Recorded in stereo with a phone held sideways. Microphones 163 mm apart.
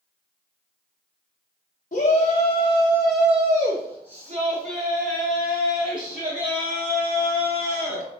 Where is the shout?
60° left (ahead or behind), 0.8 m; by 8.1 s 65° right (ahead or behind), 3 m.